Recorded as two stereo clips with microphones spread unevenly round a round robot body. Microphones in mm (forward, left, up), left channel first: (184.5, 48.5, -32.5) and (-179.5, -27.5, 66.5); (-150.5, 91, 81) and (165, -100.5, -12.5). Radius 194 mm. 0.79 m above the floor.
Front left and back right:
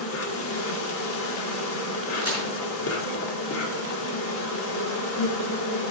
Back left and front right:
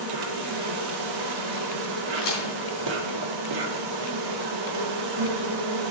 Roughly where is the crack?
Left.